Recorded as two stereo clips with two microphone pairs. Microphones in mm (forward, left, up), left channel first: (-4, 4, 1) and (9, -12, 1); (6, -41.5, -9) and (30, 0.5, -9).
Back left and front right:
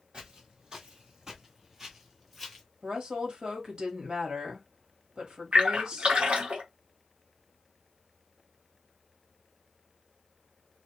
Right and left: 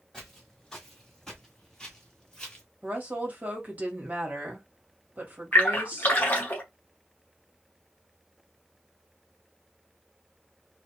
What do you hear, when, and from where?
0.1 s footsteps: 40° right, 1.9 m; by 2.6 s 120° right, 1.4 m
2.8 s a woman speaking: straight ahead, 1.3 m
5.5 s a splash: 65° right, 1.0 m